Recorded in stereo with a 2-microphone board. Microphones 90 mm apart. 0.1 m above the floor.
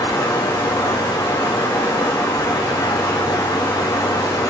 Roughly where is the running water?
Left.